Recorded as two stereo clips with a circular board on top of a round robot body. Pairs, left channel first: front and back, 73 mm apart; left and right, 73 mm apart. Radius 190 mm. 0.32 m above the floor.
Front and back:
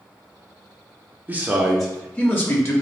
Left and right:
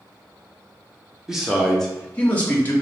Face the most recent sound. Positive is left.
turn(degrees=35)